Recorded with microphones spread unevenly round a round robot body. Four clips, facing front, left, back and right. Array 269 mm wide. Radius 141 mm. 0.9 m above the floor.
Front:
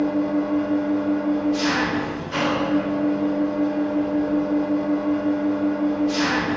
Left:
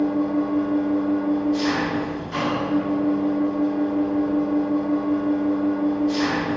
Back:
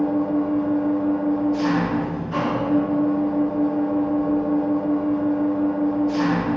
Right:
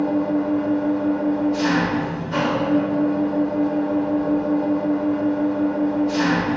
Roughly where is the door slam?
I don't hear a door slam.